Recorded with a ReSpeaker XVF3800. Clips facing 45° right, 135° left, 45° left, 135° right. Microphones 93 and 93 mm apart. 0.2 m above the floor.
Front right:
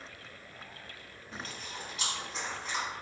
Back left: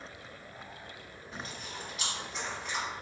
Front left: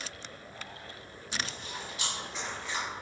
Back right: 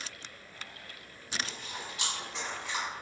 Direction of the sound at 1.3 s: 85° right.